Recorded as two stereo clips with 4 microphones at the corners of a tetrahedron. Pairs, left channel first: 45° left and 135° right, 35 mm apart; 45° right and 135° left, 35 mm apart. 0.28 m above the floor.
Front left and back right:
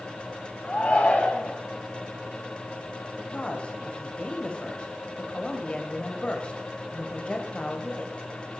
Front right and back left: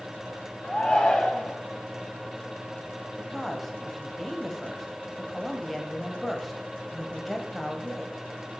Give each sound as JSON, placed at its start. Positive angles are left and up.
{"t": 0.6, "sound": "a shout", "azimuth_deg": 15, "distance_m": 1.2}
{"t": 3.2, "sound": "a woman speaking", "azimuth_deg": 45, "distance_m": 1.4}